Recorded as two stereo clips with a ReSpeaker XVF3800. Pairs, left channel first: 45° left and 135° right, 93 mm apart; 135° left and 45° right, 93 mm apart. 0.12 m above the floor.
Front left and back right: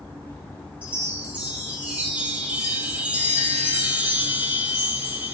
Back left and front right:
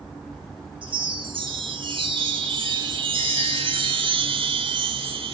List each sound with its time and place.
0.8 s a chime: 60° right, 1.5 m